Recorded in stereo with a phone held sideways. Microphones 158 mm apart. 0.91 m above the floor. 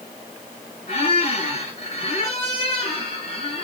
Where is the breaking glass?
I don't hear breaking glass.